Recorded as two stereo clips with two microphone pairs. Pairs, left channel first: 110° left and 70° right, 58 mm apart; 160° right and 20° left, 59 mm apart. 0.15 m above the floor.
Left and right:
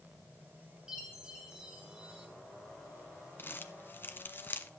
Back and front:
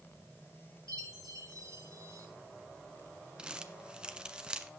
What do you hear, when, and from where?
0.9 s a chime: 10° left, 3 m
3.4 s crumpling: 90° left, 0.9 m